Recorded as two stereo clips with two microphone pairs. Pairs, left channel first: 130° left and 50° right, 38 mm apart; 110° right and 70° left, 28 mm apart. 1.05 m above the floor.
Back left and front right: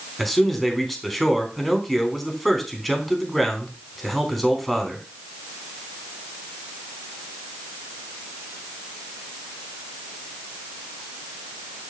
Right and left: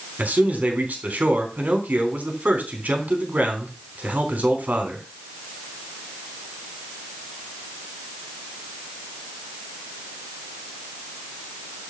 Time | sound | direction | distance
0.2 | a man speaking | 40° left | 3.5 m